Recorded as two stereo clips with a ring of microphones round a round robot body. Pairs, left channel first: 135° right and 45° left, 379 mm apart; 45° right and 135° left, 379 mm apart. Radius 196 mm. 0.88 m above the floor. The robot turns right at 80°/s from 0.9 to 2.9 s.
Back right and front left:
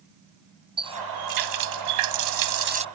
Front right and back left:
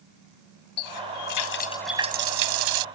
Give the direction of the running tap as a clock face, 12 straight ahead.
1 o'clock.